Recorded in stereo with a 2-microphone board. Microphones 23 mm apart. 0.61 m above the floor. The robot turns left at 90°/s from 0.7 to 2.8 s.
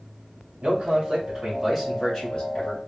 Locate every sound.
0.6 s a man speaking: 85° right, 2 m; by 2.8 s 90° left, 2 m